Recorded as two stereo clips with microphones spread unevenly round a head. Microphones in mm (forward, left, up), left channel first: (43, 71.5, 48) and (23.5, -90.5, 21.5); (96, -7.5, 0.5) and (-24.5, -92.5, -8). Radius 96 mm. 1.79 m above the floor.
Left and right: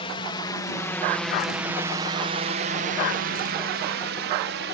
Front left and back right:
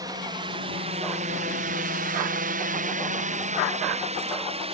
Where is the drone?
145° left; by 4.8 s 95° right.